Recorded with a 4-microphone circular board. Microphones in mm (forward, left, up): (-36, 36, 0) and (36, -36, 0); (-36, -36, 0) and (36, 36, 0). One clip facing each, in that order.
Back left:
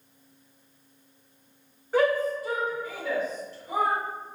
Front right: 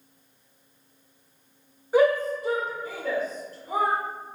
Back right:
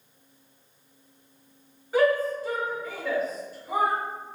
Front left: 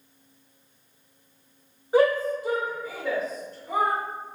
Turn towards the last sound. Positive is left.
turn(degrees=-60)